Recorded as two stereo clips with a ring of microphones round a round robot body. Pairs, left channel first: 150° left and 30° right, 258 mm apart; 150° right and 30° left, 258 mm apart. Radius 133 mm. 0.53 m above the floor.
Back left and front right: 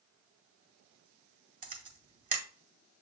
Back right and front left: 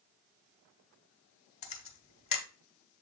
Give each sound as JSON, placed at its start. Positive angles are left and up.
{"t": 1.6, "sound": "a camera shutter", "azimuth_deg": -85, "distance_m": 1.4}